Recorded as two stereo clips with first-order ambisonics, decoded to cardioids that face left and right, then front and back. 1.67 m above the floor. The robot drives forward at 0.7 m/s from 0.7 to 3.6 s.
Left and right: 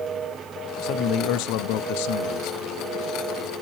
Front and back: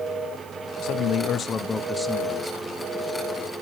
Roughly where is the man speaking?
Ahead left.